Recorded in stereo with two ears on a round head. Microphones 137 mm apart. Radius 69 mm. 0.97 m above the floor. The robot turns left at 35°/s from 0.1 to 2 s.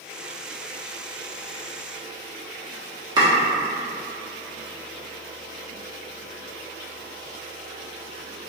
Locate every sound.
3.2 s chopping: 30° right (ahead or behind), 1.1 m